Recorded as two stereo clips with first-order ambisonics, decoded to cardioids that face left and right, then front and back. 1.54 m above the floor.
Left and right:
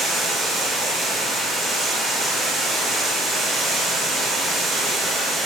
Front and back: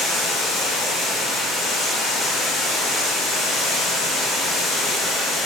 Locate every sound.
0.0 s running water: 20° right, 0.8 m